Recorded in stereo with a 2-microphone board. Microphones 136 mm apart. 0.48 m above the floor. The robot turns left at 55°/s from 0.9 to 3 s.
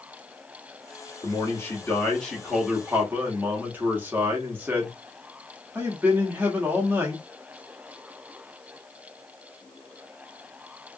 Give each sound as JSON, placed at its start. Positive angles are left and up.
{"t": 1.2, "sound": "a man speaking", "side_deg": 25, "distance_m": 1.0}